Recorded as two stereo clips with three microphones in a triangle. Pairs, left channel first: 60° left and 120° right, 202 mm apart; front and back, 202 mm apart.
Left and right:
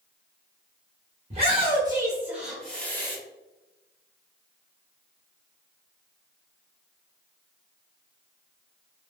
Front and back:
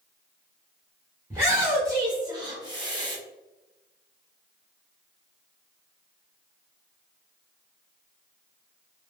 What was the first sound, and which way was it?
A shout, 115° right.